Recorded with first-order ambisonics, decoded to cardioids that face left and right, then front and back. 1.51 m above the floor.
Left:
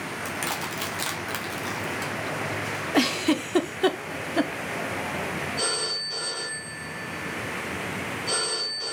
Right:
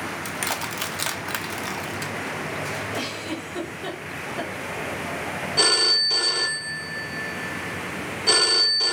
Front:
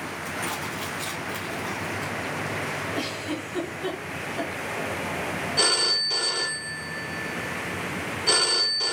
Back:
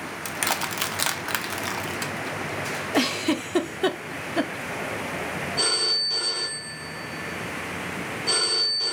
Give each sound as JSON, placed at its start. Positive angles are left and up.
{"t": 0.2, "sound": "crushing", "azimuth_deg": -165, "distance_m": 0.6}
{"t": 2.9, "sound": "a giggle", "azimuth_deg": 130, "distance_m": 0.6}
{"t": 5.6, "sound": "a phone ringing", "azimuth_deg": -60, "distance_m": 0.7}